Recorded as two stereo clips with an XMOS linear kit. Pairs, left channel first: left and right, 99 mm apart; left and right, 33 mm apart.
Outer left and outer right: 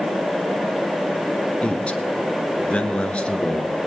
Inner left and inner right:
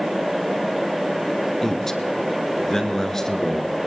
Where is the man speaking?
10° left (ahead or behind), 1.2 m.